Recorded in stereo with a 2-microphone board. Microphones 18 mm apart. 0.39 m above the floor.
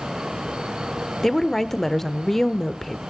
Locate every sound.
1.2 s a woman speaking: 15° left (ahead or behind), 0.8 m